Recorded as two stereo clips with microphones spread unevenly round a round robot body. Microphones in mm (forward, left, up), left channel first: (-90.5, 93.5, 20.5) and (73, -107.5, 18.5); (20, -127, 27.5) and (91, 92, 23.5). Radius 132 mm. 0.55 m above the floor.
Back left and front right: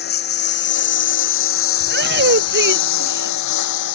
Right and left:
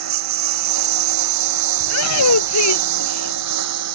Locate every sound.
0.0 s a lawn mower: 75° left; by 4.0 s 110° left
1.8 s a shout: 100° right